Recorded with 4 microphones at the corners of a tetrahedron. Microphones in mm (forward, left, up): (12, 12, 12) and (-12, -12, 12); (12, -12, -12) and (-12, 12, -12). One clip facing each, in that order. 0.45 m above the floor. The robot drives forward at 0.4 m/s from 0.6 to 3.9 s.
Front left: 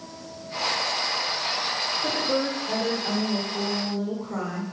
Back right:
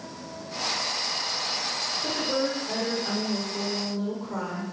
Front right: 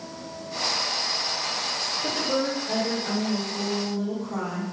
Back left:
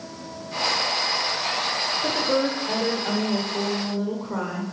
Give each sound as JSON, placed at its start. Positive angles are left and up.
{"t": 2.0, "sound": "a woman speaking", "azimuth_deg": 110, "distance_m": 1.4}